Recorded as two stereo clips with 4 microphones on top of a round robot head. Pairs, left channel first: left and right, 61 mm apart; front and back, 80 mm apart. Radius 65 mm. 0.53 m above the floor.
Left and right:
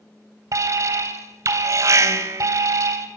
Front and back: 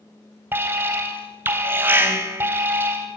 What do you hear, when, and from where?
0.5 s an alarm: 115° right, 3 m